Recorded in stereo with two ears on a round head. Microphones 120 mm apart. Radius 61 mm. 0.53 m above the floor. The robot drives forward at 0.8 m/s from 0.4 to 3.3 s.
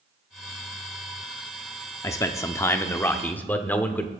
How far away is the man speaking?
About 0.7 m.